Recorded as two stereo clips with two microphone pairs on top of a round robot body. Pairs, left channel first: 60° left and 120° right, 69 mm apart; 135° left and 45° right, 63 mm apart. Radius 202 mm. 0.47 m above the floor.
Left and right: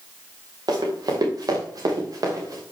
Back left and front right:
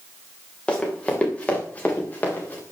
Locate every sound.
0.7 s running footsteps: 145° right, 5.5 m; by 2.6 s 160° right, 5.5 m